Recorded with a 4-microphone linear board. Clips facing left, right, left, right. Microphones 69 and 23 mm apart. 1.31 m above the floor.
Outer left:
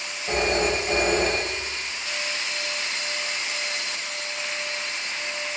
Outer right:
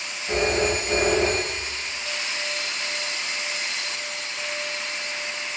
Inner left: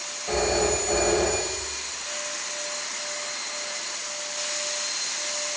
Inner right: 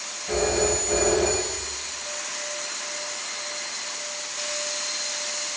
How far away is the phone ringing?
About 3.5 m.